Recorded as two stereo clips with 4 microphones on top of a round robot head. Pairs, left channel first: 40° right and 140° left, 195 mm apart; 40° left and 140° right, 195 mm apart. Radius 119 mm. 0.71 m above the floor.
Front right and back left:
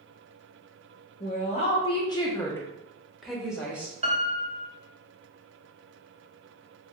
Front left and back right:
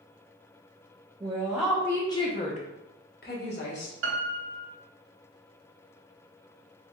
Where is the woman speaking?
75° right, 0.9 m; by 3.9 s 60° left, 1.4 m.